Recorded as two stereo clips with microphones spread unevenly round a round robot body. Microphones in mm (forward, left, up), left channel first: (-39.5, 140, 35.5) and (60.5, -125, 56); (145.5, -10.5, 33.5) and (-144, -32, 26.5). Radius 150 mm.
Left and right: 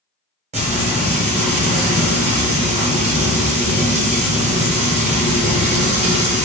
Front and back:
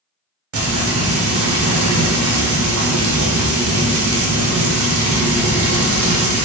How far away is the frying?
About 0.8 m.